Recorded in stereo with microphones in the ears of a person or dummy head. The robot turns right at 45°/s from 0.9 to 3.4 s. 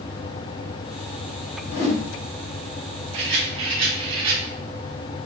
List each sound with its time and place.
1.7 s a whoosh: 50° left (ahead or behind), 2 m; by 2.0 s 35° left (ahead or behind), 2 m
3.1 s a rattle: 35° right (ahead or behind), 1.0 m; by 4.4 s 30° right (ahead or behind), 1.0 m